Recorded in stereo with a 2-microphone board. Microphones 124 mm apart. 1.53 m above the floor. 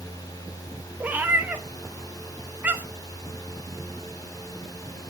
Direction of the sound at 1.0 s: 15° right (ahead or behind).